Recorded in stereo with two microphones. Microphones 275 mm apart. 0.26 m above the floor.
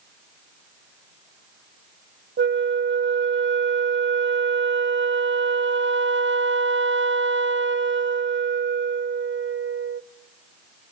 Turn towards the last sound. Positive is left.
turn(degrees=-45)  # may be behind; listen again after turning